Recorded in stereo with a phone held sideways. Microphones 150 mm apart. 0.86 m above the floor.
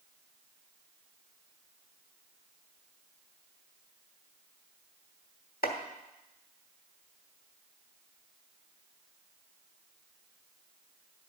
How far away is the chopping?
About 1.1 m.